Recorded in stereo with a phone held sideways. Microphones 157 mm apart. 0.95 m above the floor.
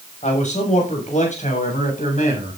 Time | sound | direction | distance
0.2 | a man speaking | 45° left (ahead or behind) | 6.5 m